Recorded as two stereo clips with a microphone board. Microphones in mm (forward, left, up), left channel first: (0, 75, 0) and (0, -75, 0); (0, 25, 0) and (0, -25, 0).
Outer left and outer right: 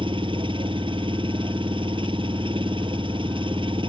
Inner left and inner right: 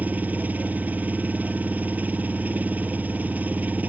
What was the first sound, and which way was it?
An engine running, 35° right (ahead or behind).